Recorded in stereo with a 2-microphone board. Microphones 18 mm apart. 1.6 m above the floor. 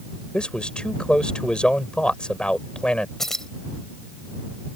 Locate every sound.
0.3 s a man speaking: 60° left (ahead or behind)
3.2 s keys jangling: 20° left (ahead or behind)